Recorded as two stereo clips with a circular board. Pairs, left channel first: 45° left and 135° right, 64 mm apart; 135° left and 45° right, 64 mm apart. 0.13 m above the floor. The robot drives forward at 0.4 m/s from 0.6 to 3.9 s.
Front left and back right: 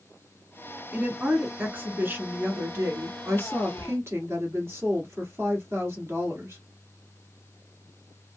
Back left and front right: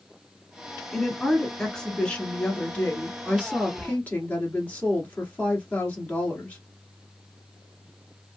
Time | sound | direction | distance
0.9 | a woman speaking | 135° right | 1.2 m